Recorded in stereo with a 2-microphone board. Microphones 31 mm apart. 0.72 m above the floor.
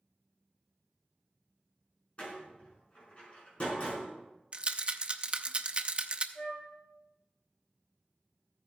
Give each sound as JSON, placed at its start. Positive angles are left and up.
{"t": 2.2, "sound": "a door slam", "side_deg": 35, "distance_m": 4.5}
{"t": 4.5, "sound": "a rattle", "side_deg": -30, "distance_m": 0.6}
{"t": 6.3, "sound": "a flute", "side_deg": 80, "distance_m": 3.5}